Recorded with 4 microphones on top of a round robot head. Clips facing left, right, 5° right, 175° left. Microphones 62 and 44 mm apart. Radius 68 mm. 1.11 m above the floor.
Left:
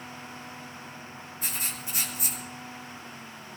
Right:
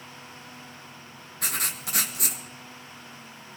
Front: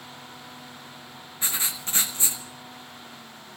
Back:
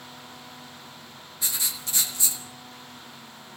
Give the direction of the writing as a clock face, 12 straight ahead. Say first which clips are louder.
Right 5 dB, front 2 dB; 2 o'clock.